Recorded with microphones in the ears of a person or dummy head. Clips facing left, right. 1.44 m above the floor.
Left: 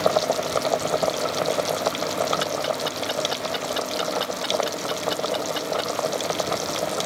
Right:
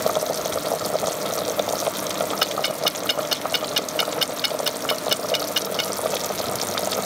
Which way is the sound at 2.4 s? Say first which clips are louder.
Even; 35° right (ahead or behind).